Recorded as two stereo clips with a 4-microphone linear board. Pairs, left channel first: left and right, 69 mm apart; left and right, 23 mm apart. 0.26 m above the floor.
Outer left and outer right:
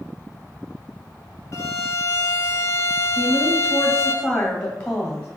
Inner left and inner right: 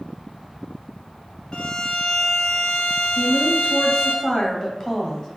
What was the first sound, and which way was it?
A violin, 40° left (ahead or behind).